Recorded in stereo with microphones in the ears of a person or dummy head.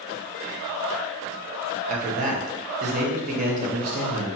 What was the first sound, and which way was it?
A man speaking, 45° right (ahead or behind).